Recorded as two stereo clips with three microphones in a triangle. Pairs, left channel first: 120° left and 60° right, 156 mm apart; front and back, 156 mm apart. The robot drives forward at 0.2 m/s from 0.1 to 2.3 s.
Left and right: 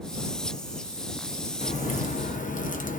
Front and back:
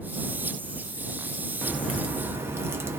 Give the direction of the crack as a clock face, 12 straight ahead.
9 o'clock.